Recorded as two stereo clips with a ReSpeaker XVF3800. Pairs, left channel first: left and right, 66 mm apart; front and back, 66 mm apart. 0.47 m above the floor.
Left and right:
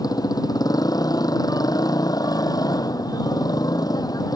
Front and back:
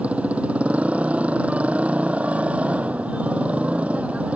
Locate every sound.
0.0 s a motorcycle: 110° left